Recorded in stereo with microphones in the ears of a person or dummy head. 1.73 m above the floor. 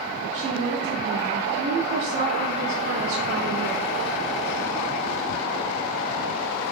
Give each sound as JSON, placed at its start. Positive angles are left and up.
{"t": 0.3, "sound": "a woman speaking", "side_deg": -55, "distance_m": 0.7}